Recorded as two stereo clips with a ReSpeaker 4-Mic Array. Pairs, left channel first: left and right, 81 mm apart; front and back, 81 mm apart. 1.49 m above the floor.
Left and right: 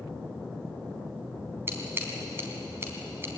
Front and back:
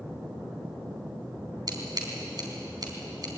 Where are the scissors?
150° right, 4 m.